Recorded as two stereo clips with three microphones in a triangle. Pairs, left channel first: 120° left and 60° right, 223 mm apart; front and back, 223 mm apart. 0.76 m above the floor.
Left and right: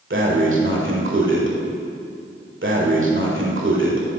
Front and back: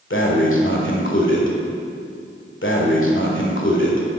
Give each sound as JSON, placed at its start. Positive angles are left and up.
{"t": 0.1, "sound": "breathing", "azimuth_deg": -30, "distance_m": 1.6}